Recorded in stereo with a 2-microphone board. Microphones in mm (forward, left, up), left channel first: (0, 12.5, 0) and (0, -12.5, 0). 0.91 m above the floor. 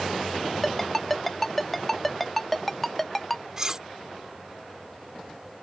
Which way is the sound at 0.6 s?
5° left (ahead or behind).